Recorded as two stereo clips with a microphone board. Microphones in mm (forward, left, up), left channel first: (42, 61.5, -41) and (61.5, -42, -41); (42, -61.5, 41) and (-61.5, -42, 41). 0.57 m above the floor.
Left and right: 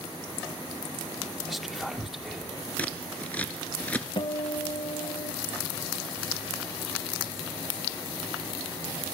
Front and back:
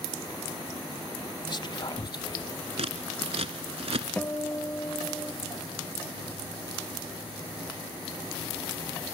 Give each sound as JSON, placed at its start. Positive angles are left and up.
{"t": 1.5, "sound": "whispering", "azimuth_deg": 10, "distance_m": 0.8}
{"t": 2.8, "sound": "scissors", "azimuth_deg": 175, "distance_m": 1.2}
{"t": 4.2, "sound": "a guitar", "azimuth_deg": 60, "distance_m": 1.1}